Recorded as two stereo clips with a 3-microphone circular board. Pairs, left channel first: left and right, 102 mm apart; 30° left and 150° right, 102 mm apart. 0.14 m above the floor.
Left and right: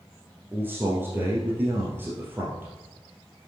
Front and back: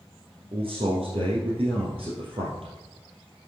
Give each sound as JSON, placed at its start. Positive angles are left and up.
{"t": 0.5, "sound": "a man speaking", "azimuth_deg": -155, "distance_m": 2.5}